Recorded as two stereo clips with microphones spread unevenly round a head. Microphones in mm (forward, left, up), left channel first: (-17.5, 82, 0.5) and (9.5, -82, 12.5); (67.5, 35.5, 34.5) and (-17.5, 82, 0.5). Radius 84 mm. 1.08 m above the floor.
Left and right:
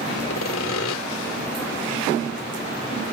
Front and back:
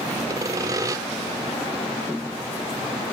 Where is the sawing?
95° left.